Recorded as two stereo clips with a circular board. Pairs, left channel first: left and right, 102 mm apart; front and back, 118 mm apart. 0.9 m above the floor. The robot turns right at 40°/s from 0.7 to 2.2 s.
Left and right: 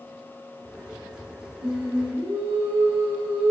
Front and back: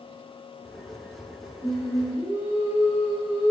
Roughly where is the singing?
Behind right.